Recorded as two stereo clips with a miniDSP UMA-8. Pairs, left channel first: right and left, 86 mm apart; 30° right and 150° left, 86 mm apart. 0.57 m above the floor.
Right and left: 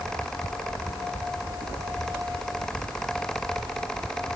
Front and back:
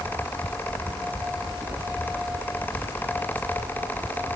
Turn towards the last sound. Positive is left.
No sound to turn to.